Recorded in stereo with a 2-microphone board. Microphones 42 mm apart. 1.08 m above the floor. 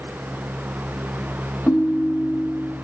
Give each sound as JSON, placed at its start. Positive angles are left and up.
{"t": 1.7, "sound": "a ringtone", "side_deg": 45, "distance_m": 0.5}